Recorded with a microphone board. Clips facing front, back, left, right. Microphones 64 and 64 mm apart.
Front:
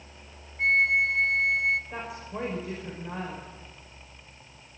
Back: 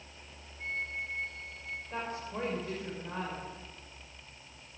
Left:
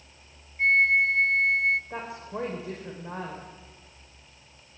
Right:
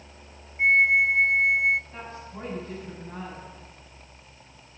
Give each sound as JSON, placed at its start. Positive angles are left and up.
{"t": 0.6, "sound": "a flute", "azimuth_deg": -15, "distance_m": 0.6}
{"t": 1.9, "sound": "a woman speaking", "azimuth_deg": 80, "distance_m": 5.0}